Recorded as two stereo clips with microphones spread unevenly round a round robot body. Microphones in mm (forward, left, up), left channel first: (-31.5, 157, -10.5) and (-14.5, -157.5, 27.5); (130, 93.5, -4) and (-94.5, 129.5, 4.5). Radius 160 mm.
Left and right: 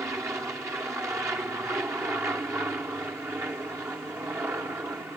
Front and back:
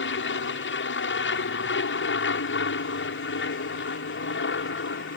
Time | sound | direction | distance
0.0 | an aircraft | straight ahead | ?